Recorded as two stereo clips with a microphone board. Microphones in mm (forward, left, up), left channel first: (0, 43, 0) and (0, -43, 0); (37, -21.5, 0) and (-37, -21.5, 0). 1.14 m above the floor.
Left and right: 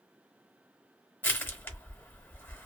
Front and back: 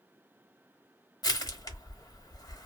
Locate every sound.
1.2 s crushing: 25° left, 1.0 m